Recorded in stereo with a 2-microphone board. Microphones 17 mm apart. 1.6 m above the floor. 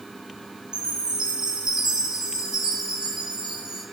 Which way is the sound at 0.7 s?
45° right (ahead or behind).